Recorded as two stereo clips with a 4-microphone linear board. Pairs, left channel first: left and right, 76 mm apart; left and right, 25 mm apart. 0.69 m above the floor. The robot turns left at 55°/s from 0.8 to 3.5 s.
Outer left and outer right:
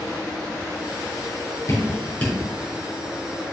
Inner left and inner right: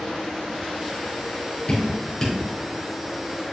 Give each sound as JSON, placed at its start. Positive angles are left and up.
{"t": 1.7, "sound": "dripping", "side_deg": 50, "distance_m": 4.0}